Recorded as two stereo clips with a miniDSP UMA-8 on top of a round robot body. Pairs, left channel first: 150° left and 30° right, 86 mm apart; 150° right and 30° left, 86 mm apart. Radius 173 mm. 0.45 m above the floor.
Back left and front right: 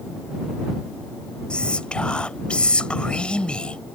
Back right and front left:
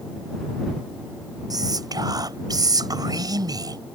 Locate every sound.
1.5 s whispering: 70° left